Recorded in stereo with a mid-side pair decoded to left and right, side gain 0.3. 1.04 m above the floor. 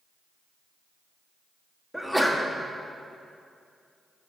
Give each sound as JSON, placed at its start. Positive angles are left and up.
{"t": 1.9, "sound": "a sneeze", "azimuth_deg": 5, "distance_m": 1.8}